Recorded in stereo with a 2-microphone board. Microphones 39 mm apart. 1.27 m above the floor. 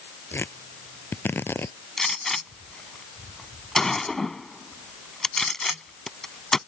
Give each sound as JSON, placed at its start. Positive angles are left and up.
{"t": 0.3, "sound": "tearing paper", "side_deg": 70}
{"t": 2.0, "sound": "a gunshot", "side_deg": 10}